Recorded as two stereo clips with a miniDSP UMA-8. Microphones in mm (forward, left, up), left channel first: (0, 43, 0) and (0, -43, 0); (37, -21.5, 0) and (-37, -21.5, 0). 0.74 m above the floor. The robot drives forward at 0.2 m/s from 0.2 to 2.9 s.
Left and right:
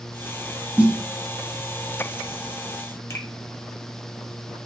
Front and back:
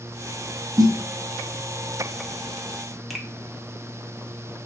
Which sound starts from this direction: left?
A finger snap, at 3.1 s.